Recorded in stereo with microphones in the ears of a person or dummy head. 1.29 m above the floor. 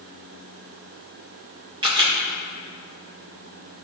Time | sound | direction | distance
1.8 | a camera shutter | 25° right (ahead or behind) | 1.8 m